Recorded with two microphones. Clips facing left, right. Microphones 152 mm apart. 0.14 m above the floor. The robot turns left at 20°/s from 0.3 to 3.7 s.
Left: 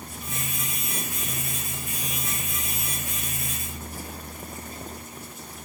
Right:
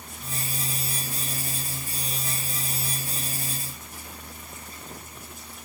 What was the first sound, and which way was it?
Only background noise.